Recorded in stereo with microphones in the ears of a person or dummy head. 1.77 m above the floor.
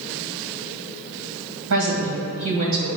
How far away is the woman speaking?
About 2 m.